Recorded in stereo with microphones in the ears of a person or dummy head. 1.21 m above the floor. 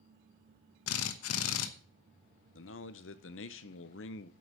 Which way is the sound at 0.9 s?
85° left.